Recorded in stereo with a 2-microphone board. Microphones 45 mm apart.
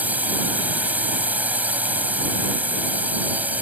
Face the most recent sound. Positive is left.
turn(degrees=-35)  # may be behind; listen again after turning